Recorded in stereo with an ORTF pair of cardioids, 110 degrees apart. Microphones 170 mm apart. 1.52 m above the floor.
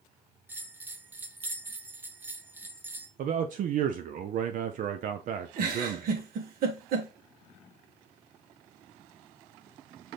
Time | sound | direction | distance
0.5 | a bell | 10° right | 0.5 m
3.2 | a man speaking | 50° right | 0.5 m
5.6 | a giggle | 60° right | 1.2 m